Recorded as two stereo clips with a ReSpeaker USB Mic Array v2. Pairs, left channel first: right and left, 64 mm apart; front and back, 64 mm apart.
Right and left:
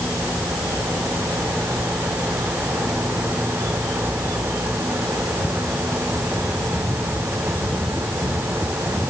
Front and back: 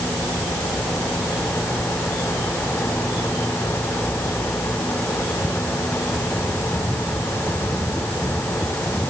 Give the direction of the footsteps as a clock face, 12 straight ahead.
No footsteps in this recording.